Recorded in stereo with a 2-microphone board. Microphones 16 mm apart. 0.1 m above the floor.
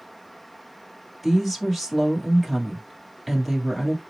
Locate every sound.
1.2 s a woman speaking: centre (ahead or behind), 2 m